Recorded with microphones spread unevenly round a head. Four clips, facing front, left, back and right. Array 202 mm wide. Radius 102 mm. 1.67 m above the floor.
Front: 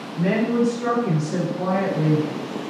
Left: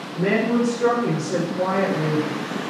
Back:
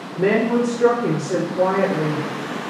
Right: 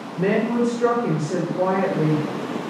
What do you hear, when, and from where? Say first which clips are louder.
0.1 s a woman speaking: even, back 3 dB; 170° left, 4.5 m; by 2.7 s 175° left, 3.5 m